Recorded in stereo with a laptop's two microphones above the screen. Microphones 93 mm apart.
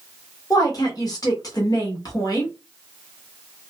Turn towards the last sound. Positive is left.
turn(degrees=40)  # may be behind; listen again after turning